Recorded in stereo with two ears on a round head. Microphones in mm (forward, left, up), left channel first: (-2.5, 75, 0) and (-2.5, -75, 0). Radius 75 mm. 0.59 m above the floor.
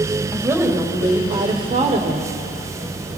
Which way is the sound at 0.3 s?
15° right (ahead or behind).